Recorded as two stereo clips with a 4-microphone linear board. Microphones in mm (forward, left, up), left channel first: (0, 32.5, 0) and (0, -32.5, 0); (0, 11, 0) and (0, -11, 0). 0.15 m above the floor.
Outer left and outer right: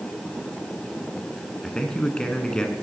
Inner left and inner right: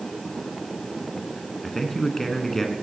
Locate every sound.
1.6 s a man speaking: 15° left (ahead or behind), 1.3 m